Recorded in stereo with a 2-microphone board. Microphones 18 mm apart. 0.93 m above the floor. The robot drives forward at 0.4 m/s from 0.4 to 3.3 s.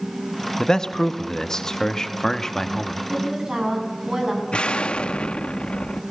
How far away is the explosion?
About 1.0 m.